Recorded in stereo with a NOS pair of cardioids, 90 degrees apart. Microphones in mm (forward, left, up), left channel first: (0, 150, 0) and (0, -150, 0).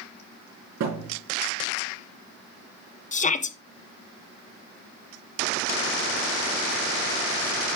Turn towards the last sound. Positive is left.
turn(degrees=25)